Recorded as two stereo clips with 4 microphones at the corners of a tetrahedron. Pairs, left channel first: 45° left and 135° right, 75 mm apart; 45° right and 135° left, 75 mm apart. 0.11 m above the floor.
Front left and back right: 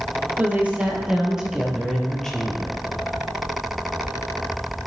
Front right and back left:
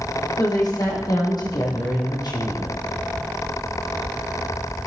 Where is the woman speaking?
70° right, 3.5 m; by 2.8 s 25° right, 3 m.